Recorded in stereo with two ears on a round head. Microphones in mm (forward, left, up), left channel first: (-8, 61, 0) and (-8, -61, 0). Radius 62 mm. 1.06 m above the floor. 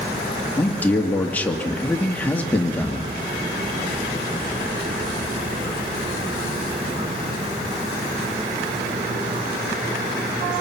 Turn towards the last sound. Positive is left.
turn(degrees=10)  # may be behind; listen again after turning